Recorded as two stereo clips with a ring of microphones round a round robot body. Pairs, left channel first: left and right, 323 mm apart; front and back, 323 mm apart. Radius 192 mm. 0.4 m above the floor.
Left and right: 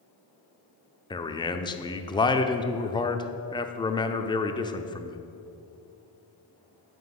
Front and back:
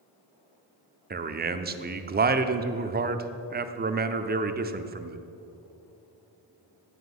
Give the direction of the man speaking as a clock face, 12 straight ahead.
7 o'clock.